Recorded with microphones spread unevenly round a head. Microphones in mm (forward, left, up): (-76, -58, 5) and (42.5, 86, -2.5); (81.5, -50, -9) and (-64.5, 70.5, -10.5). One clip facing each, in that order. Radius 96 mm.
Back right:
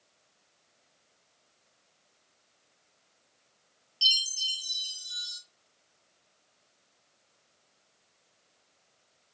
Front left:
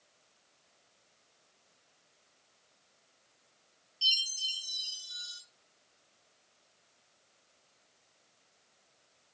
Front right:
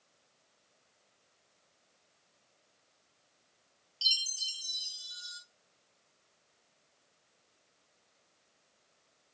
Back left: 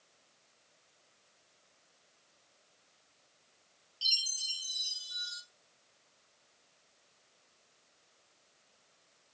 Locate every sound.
4.0 s a chime: 95° right, 0.8 m